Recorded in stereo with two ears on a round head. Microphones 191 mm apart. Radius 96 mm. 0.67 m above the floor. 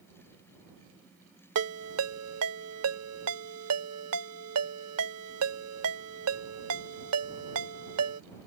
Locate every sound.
1.6 s a ringtone: 85° right